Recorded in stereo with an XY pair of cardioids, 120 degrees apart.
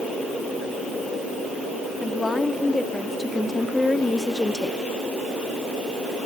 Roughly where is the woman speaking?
Ahead.